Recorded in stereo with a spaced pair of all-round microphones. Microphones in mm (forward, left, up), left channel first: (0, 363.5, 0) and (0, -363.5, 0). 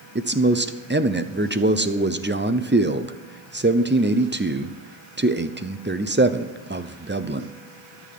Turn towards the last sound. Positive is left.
turn(degrees=-15)  # may be behind; listen again after turning